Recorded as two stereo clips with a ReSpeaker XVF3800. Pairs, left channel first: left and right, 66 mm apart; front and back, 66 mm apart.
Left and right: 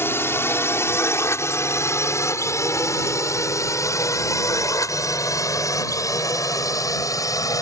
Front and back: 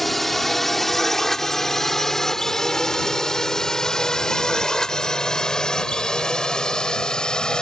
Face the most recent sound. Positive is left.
turn(degrees=80)